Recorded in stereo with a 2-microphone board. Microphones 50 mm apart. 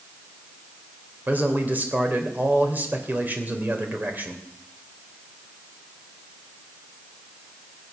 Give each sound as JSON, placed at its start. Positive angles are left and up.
{"t": 1.3, "sound": "a man speaking", "side_deg": -40, "distance_m": 2.5}